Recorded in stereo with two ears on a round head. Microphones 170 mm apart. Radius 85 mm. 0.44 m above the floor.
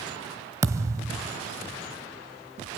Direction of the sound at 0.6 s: 20° right (ahead or behind).